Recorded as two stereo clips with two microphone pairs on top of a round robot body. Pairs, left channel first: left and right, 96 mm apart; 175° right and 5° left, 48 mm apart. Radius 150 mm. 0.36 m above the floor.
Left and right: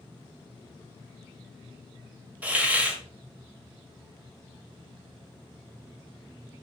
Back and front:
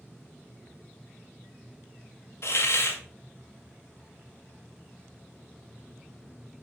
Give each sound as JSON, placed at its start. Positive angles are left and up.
{"t": 2.4, "sound": "a hiss", "azimuth_deg": -165, "distance_m": 1.8}